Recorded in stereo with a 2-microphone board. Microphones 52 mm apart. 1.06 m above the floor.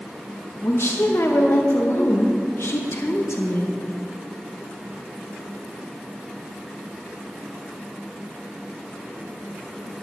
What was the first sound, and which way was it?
A woman speaking, 50° left (ahead or behind).